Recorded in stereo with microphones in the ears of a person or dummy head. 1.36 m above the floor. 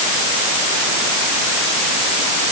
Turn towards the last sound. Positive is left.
No sound to turn to.